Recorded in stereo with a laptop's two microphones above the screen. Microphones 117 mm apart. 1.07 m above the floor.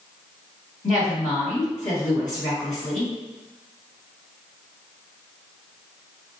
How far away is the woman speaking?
About 1.7 m.